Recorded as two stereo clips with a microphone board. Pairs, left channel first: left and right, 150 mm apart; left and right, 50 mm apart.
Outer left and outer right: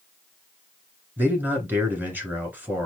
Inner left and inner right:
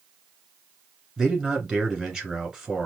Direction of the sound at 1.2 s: 15° right (ahead or behind).